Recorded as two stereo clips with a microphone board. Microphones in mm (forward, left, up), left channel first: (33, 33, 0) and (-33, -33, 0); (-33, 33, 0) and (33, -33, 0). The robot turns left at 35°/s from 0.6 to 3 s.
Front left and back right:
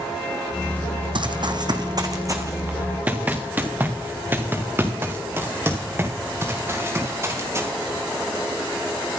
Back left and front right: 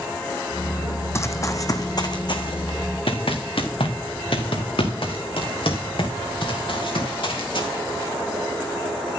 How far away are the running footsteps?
About 1.1 m.